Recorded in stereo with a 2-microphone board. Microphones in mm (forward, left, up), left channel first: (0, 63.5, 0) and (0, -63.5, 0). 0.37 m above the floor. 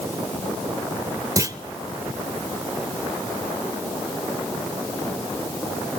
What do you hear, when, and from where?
1.4 s a clunk: 25° right (ahead or behind), 0.6 m